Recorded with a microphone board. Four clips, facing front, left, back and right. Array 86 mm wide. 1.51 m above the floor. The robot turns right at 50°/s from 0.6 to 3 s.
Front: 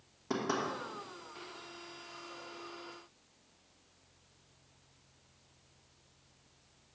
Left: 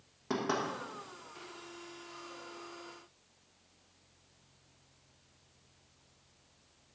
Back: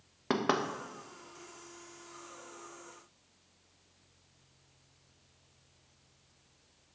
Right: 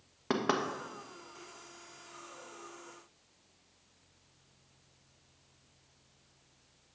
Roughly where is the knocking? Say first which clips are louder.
Right 2 dB, back 4 dB; behind right.